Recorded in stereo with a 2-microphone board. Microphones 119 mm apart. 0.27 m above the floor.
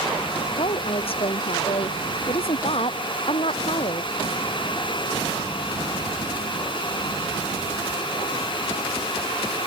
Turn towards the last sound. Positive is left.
turn(degrees=55)  # may be behind; listen again after turning